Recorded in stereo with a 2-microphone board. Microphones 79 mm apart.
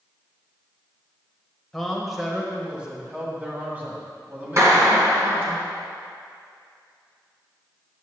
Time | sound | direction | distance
1.7 | a man speaking | 5° left (ahead or behind) | 1.1 m
4.6 | a clap | 40° right (ahead or behind) | 2.0 m